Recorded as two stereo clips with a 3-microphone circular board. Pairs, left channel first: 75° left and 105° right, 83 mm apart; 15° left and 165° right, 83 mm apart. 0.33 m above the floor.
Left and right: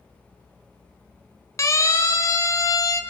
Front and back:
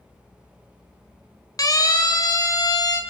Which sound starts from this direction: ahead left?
A siren, at 1.6 s.